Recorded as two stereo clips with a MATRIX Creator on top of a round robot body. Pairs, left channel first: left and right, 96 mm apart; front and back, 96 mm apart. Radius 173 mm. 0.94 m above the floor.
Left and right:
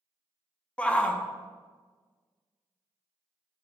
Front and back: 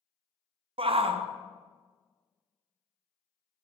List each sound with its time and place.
0.8 s a shout: 170° left, 0.6 m